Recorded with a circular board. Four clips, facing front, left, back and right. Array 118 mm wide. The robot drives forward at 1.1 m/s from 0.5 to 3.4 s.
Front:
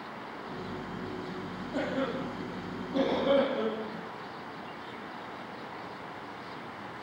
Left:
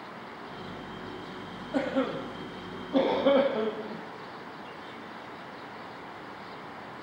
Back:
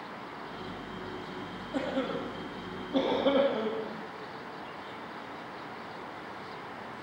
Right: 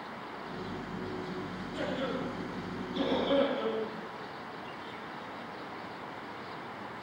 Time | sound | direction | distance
1.7 | a cough | 95° left | 8 m